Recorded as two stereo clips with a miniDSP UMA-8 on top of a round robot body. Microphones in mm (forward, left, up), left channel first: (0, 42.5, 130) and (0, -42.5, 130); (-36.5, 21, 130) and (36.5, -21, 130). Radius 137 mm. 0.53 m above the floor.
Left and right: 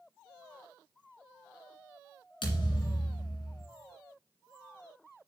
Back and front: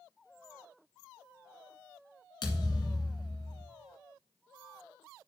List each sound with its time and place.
2.4 s a thud: 115° left, 2 m